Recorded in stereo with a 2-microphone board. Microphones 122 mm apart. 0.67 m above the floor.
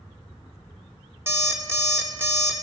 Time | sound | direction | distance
1.3 | an alarm clock | 20° right (ahead or behind) | 1.1 m